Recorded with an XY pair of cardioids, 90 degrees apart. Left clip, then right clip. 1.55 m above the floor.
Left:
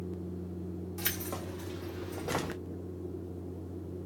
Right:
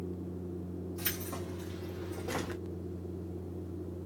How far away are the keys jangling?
About 1.3 m.